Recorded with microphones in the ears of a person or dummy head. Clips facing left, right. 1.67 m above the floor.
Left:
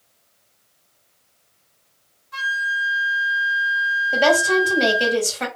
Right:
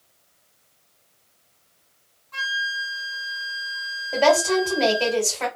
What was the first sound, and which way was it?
A flute, 15° left (ahead or behind).